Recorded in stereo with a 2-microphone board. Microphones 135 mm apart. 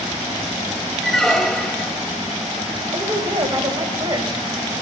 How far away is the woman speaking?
About 1.4 m.